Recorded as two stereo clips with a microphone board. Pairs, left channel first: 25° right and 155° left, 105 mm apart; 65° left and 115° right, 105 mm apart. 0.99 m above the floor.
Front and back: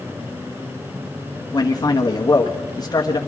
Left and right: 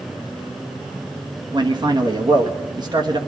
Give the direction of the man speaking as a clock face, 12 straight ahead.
2 o'clock.